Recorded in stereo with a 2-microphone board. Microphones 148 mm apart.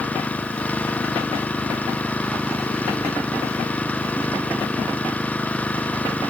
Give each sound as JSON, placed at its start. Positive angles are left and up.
{"t": 0.0, "sound": "an engine running", "side_deg": 10}